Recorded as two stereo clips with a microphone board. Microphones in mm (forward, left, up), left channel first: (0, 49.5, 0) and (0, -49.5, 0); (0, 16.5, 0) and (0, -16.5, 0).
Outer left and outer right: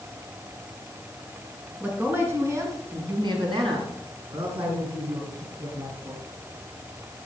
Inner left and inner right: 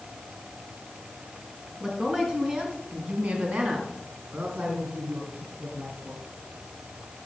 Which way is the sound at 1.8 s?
15° right (ahead or behind).